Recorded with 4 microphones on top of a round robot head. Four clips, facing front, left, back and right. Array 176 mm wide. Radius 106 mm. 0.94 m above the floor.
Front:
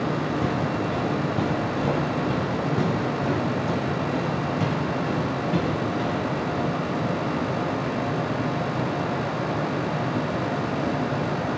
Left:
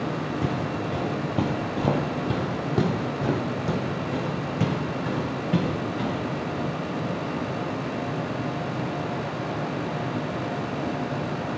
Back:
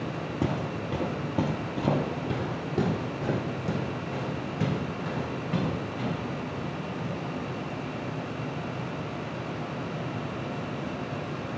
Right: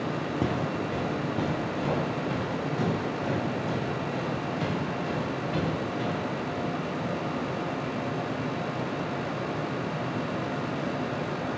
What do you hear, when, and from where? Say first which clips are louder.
0.4 s footsteps: left 1 dB, front 5 dB; 135° right, 1.0 m; by 6.2 s 85° left, 3.5 m